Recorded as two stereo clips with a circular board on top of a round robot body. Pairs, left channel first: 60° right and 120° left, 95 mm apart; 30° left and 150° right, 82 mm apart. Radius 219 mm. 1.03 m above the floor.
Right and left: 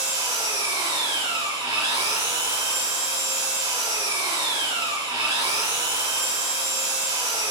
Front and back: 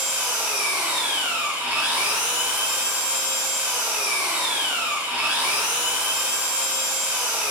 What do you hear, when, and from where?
0.0 s an engine running: 140° left, 5 m